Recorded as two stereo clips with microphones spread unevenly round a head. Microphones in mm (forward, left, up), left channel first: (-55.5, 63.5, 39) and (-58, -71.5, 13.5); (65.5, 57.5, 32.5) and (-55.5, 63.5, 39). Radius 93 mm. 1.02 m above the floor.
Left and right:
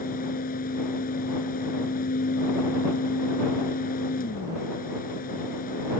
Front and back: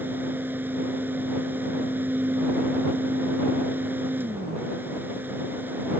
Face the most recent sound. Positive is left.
turn(degrees=100)